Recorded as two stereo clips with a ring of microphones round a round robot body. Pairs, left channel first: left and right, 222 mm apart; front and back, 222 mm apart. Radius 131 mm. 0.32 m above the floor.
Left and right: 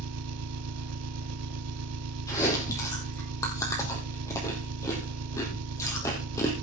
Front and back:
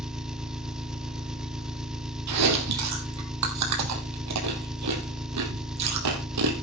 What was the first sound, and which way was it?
An engine running, 95° right.